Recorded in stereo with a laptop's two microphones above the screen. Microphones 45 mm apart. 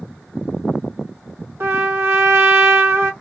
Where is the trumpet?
70° right (ahead or behind), 1.4 m.